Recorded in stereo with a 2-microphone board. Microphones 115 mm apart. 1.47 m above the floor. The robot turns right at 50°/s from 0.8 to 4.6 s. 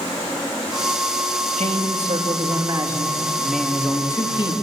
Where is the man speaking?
95° right, 3 m; by 4.5 s 50° left, 3 m.